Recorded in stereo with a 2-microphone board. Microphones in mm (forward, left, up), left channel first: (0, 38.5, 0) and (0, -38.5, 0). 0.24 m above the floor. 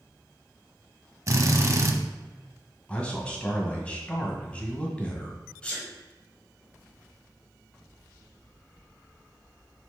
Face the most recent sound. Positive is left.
turn(degrees=15)  # may be behind; listen again after turning